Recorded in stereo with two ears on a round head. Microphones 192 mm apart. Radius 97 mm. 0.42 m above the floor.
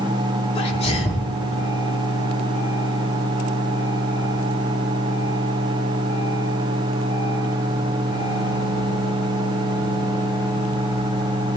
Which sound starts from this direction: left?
A sneeze, at 0.6 s.